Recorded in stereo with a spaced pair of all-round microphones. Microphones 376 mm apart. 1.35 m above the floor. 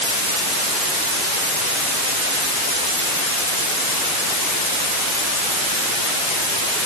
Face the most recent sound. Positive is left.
No sound to turn to.